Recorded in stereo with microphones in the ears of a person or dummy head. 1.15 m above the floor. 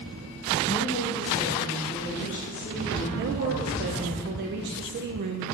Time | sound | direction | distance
0.7 | a woman speaking | 25° left (ahead or behind) | 1.3 m
3.1 | a woman speaking | 50° right (ahead or behind) | 0.5 m